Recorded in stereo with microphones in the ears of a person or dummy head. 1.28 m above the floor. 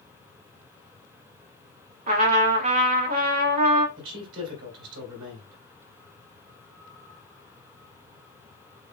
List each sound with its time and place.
2.1 s a trumpet: 45° right (ahead or behind), 1.1 m
4.0 s a man speaking: 75° right (ahead or behind), 3 m